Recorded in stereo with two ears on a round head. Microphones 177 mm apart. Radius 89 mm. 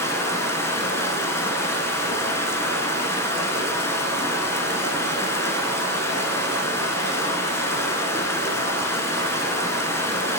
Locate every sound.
0.0 s running water: 15° left (ahead or behind), 0.8 m